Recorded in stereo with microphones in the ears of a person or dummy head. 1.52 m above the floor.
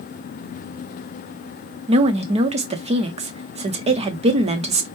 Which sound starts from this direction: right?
A woman speaking, at 1.9 s.